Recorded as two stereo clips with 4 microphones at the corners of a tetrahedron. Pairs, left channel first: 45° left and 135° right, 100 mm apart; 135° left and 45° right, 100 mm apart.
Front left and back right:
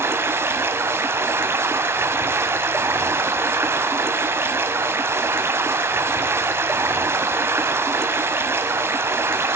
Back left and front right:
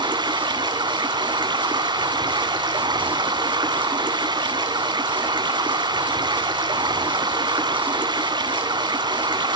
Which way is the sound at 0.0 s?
75° right.